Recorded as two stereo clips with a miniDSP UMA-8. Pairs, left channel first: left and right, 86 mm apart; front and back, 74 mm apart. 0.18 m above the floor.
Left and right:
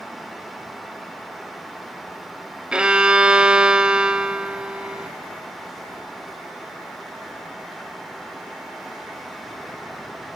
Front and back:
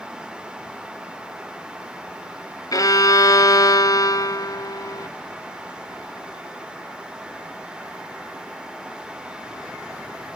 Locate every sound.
2.7 s a violin: 10° right, 0.6 m